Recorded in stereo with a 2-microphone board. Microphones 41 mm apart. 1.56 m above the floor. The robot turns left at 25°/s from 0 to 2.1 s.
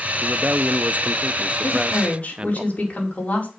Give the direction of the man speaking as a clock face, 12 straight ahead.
3 o'clock.